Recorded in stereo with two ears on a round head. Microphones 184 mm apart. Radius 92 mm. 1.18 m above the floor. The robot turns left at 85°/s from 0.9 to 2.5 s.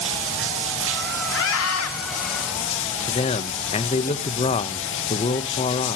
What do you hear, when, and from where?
0.0 s running water: 110° right, 2 m; by 6.0 s 115° left, 2 m
1.3 s a scream: 120° left, 2.5 m; by 1.9 s 70° left, 2.5 m
3.1 s a man speaking: 30° left (ahead or behind), 1.0 m